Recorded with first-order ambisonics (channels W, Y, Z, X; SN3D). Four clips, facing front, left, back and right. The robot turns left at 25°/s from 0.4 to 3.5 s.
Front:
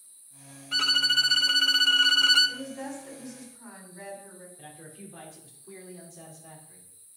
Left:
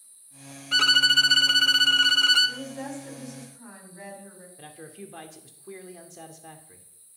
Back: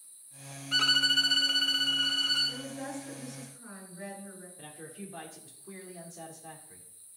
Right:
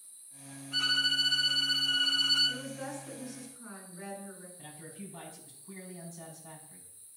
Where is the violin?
90° left, 0.5 m; by 2.6 s 45° left, 0.5 m.